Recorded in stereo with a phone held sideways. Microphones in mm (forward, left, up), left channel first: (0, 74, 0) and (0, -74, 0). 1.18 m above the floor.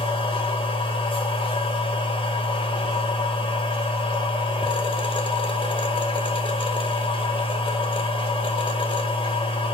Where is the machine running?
35° left (ahead or behind), 1.1 m.